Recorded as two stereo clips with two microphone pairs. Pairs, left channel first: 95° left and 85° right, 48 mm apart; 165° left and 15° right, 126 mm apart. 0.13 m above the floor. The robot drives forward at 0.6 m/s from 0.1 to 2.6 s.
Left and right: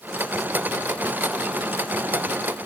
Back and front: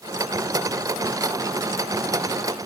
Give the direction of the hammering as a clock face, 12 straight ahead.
I don't hear hammering.